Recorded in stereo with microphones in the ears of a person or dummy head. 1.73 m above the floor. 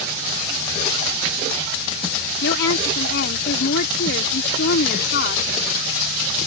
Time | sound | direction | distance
2.4 | a woman speaking | 70° left (ahead or behind) | ?